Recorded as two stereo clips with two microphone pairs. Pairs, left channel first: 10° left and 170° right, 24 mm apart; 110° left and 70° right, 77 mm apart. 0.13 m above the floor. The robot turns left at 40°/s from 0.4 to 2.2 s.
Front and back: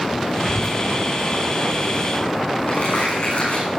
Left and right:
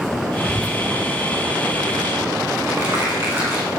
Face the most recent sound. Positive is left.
turn(degrees=-10)